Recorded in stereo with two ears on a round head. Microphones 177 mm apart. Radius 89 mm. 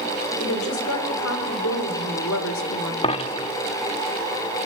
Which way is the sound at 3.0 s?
30° left (ahead or behind).